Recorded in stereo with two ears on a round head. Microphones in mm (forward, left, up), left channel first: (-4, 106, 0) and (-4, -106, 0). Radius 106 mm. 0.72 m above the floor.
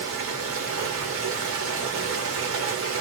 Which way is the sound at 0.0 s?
55° right (ahead or behind).